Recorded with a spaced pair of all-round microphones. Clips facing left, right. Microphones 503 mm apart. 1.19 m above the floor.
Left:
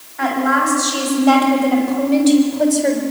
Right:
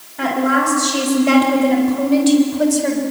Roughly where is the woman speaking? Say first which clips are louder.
Right 1 dB; right.